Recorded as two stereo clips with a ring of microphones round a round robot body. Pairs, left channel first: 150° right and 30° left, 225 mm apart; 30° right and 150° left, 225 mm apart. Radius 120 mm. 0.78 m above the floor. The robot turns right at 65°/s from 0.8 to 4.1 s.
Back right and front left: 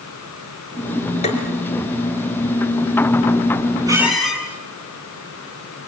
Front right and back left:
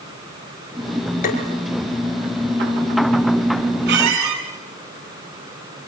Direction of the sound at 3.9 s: 105° left.